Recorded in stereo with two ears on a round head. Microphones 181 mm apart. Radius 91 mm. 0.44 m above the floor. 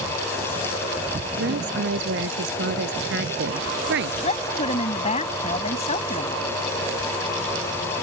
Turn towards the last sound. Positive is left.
turn(degrees=35)  # may be behind; listen again after turning